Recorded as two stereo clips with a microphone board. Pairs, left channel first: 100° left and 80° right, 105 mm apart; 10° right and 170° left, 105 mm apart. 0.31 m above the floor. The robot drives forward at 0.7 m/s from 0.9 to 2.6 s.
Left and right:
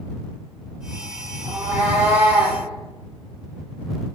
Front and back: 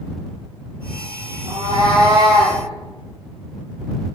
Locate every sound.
1.4 s a cat meowing: 145° right, 6 m; by 2.6 s 150° right, 6.5 m